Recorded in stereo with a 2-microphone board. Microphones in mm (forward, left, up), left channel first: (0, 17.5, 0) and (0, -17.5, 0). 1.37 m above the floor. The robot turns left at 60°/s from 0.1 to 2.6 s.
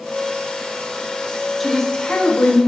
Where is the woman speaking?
Straight behind, 0.5 m; by 2.6 s 120° left, 0.5 m.